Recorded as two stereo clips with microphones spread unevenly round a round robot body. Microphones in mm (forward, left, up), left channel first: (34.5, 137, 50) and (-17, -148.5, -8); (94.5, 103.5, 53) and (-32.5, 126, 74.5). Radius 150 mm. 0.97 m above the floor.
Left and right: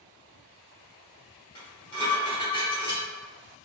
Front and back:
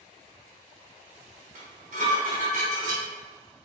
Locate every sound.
1.6 s dishes clattering: 155° left, 1.0 m